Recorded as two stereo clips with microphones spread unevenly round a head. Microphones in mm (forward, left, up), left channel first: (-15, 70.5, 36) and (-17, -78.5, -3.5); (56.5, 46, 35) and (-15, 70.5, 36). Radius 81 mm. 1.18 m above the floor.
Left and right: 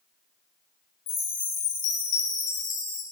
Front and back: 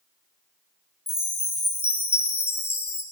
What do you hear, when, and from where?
1.1 s a chime: 35° left, 2 m